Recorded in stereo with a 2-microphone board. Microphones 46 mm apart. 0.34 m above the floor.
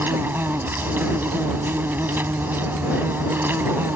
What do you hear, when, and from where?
0.0 s an insect: 55° right (ahead or behind)